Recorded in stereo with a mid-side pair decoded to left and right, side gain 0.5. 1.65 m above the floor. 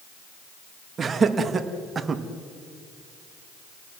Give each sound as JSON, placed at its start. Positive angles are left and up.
{"t": 1.0, "sound": "laughter", "azimuth_deg": -35, "distance_m": 3.0}